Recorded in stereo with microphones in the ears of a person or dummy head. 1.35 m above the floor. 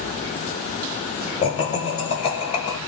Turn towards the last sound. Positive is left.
turn(degrees=35)  # may be behind; listen again after turning